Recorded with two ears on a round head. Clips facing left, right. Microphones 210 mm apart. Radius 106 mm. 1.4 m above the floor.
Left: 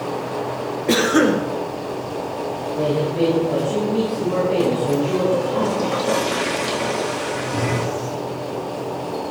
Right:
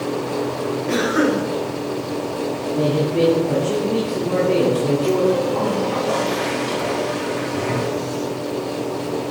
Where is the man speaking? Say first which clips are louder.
Right 1 dB; 60° right (ahead or behind), 2.5 m.